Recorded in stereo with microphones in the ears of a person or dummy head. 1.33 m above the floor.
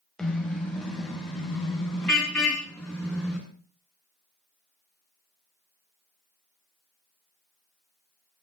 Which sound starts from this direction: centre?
A car horn, at 0.2 s.